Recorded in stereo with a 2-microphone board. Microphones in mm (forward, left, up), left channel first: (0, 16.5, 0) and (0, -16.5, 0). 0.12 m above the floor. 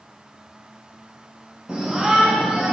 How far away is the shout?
About 3 m.